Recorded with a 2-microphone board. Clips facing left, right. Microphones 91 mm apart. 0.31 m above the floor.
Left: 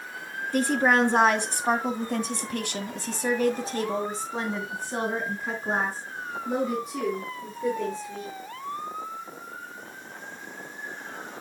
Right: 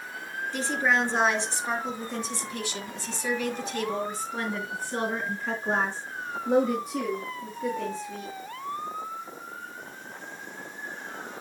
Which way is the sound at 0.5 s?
50° left (ahead or behind).